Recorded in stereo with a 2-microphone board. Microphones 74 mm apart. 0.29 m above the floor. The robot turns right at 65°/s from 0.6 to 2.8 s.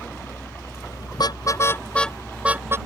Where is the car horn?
70° left (ahead or behind); by 2.8 s 35° right (ahead or behind).